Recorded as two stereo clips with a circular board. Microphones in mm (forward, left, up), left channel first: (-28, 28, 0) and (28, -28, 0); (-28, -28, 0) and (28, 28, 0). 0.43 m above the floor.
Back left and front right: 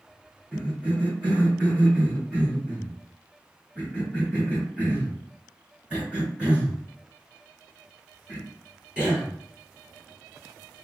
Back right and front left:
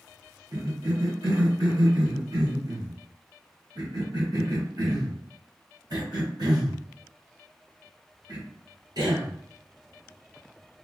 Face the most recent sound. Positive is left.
turn(degrees=30)